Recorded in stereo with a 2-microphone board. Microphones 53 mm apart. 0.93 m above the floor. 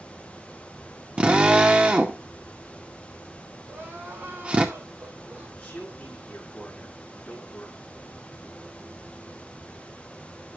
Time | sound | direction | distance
1.2 | a drill | 25° right (ahead or behind) | 1.9 m
3.6 | crying | 35° right (ahead or behind) | 8.5 m
5.6 | a man speaking | 10° left (ahead or behind) | 8.5 m